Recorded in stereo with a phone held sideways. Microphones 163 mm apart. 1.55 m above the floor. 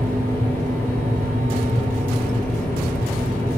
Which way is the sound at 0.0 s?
15° left (ahead or behind).